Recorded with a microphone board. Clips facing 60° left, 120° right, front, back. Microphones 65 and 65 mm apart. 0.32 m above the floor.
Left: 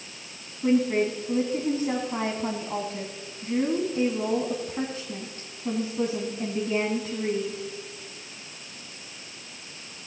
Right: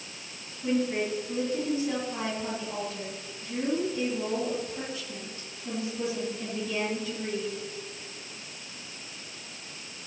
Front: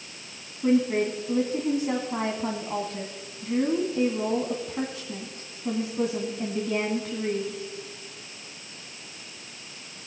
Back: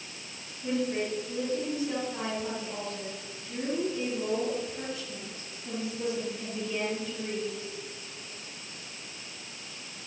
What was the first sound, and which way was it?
A woman speaking, 15° left.